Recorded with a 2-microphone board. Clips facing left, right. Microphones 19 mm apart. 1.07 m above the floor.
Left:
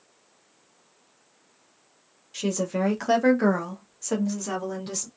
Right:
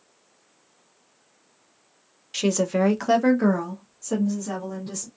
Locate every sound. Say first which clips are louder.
2.3 s a woman speaking: right 4 dB; 40° right (ahead or behind), 0.7 m; by 5.1 s 50° left (ahead or behind), 1.4 m